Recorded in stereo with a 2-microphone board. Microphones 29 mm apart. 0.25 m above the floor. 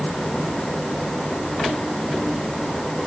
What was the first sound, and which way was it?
Only background noise.